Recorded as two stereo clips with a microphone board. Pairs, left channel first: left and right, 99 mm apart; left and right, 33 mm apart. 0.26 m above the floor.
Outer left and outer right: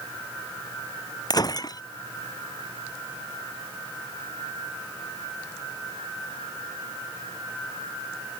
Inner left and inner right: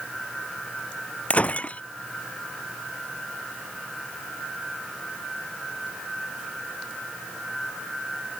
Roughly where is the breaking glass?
Left.